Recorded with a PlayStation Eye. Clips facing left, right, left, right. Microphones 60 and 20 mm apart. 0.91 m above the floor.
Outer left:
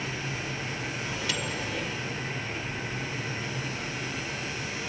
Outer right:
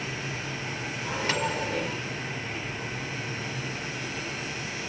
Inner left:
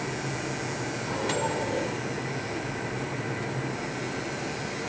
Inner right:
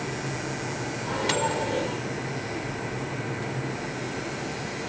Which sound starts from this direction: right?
A microwave, at 1.0 s.